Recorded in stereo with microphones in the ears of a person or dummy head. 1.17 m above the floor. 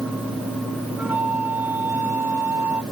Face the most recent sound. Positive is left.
turn(degrees=-10)  # may be behind; listen again after turning